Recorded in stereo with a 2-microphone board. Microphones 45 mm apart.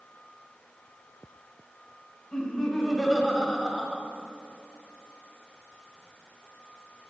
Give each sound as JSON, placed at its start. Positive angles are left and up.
{"t": 2.3, "sound": "laughter", "side_deg": 10, "distance_m": 1.2}